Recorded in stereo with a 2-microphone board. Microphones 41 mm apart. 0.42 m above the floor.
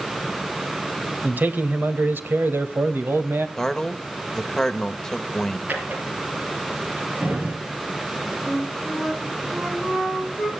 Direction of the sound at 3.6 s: 10° left (ahead or behind).